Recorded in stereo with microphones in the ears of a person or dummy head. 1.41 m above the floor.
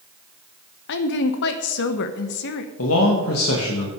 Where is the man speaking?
80° left, 2.0 m.